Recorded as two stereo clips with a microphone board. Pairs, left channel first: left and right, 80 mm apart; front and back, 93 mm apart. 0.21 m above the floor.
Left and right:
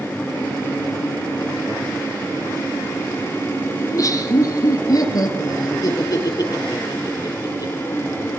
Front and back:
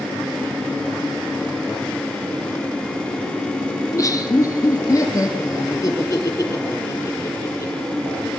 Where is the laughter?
50° left, 3.5 m; by 7.7 s 55° left, 7.5 m.